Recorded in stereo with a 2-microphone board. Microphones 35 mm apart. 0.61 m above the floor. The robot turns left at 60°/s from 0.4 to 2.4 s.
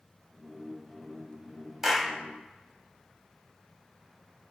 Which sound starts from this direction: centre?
A clap, at 1.8 s.